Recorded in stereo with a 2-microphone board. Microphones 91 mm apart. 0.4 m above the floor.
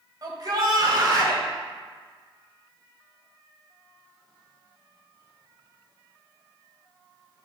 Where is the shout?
50° right (ahead or behind), 1.5 m.